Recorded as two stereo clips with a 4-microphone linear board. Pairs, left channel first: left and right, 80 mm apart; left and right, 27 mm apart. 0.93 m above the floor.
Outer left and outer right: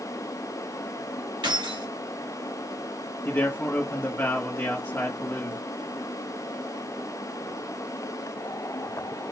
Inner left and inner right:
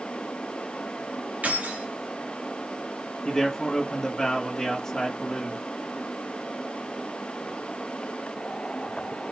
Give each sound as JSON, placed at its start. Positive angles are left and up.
{"t": 1.4, "sound": "keys jangling", "side_deg": -90, "distance_m": 2.0}
{"t": 3.2, "sound": "a man speaking", "side_deg": 30, "distance_m": 1.9}